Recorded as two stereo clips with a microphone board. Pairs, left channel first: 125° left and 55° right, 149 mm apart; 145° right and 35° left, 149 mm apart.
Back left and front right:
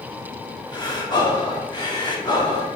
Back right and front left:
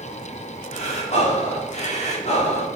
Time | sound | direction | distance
0.7 | breathing | straight behind | 1.7 m